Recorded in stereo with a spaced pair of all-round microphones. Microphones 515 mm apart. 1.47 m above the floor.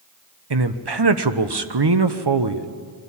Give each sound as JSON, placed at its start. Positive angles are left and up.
{"t": 0.5, "sound": "a man speaking", "side_deg": -50, "distance_m": 1.0}